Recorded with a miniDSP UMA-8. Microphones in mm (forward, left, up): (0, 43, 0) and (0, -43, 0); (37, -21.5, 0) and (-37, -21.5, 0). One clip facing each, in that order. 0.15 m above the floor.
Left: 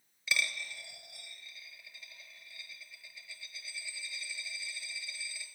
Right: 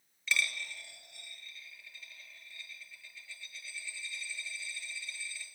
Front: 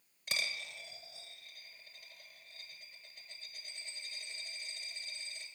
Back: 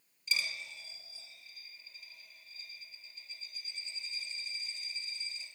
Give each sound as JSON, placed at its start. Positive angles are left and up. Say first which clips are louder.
{"t": 0.3, "sound": "a dropped coin", "louder": "right 1 dB, back 1 dB", "azimuth_deg": 10, "distance_m": 1.1}